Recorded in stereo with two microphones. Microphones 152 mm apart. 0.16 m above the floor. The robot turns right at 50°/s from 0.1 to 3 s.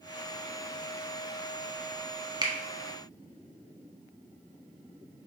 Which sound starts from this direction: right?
A finger snap, at 2.4 s.